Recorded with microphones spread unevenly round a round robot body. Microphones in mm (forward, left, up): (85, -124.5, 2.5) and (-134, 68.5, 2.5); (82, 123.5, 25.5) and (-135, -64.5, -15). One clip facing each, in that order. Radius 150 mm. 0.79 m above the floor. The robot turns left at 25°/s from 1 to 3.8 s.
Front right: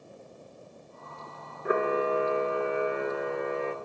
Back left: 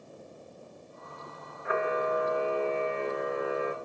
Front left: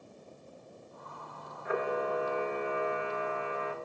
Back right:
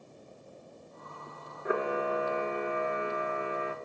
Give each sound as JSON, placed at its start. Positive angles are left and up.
{"t": 1.6, "sound": "a camera shutter", "azimuth_deg": -90, "distance_m": 1.8}